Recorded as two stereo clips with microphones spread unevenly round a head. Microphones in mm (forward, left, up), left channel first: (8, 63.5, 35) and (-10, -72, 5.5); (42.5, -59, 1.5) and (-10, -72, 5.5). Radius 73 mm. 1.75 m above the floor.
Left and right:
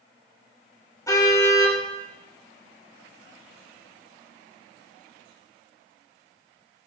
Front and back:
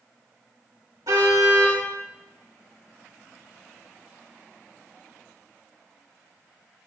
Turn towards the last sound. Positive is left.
turn(degrees=145)